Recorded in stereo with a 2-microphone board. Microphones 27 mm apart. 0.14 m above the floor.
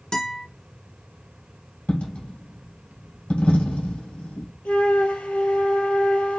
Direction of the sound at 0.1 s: 35° left (ahead or behind).